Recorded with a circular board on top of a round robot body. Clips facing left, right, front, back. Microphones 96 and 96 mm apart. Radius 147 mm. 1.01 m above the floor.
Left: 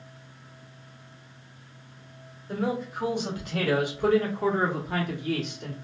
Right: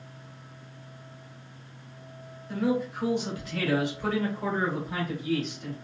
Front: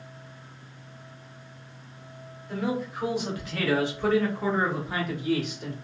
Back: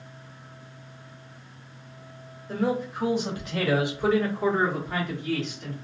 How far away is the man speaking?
About 2 m.